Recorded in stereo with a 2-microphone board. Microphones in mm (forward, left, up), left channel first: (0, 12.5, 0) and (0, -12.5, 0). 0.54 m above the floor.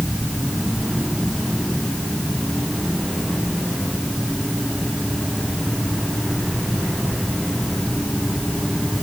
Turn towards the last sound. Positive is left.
No sound to turn to.